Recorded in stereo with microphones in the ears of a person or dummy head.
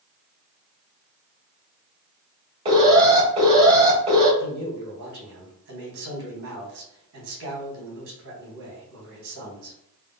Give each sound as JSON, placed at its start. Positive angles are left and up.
{"t": 2.6, "sound": "an alarm", "side_deg": -25, "distance_m": 1.7}
{"t": 4.4, "sound": "a man speaking", "side_deg": -60, "distance_m": 1.7}